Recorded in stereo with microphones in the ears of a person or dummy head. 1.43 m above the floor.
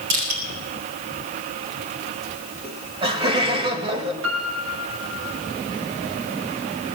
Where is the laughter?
30° right (ahead or behind), 2 m.